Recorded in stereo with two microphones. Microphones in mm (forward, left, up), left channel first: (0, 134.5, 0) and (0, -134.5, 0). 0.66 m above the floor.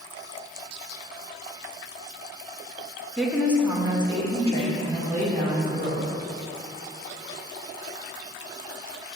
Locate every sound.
3.2 s a woman speaking: centre (ahead or behind), 1.3 m; by 6.1 s 35° right (ahead or behind), 2.5 m